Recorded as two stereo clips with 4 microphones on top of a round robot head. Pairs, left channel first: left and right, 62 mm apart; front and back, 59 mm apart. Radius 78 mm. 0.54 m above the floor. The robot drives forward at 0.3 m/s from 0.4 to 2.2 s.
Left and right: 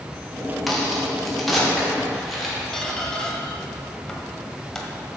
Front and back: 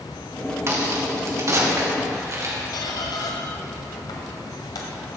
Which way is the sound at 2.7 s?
10° left.